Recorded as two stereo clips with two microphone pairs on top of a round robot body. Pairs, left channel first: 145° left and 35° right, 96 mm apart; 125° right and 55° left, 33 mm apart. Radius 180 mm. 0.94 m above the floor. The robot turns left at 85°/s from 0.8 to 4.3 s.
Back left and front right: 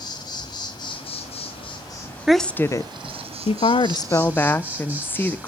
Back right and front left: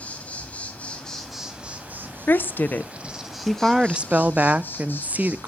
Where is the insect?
170° right, 1.3 m; by 5.5 s 110° right, 1.3 m.